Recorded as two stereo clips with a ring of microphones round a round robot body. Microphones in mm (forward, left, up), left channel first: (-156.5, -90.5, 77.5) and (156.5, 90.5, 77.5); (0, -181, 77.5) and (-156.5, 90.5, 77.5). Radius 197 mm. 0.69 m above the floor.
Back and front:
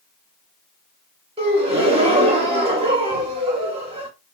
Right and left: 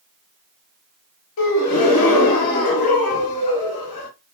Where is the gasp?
45° right, 1.1 m.